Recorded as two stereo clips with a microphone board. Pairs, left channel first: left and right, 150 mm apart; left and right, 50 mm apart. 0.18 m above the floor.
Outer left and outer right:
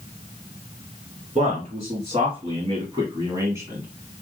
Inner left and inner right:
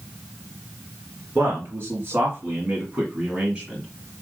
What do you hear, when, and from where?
1.4 s a man speaking: 50° right (ahead or behind), 2 m; by 3.9 s 15° right (ahead or behind), 1.4 m